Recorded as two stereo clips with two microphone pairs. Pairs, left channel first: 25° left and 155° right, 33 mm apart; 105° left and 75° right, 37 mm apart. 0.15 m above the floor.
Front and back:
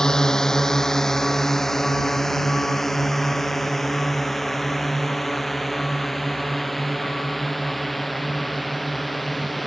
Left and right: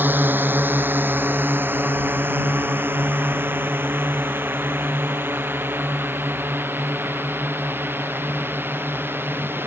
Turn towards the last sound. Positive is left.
turn(degrees=-65)